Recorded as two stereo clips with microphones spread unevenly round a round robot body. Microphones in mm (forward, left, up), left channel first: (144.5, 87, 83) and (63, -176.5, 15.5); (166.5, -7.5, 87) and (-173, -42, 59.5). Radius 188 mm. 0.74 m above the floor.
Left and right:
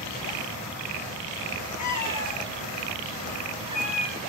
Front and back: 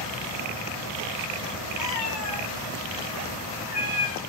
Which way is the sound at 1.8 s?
45° left.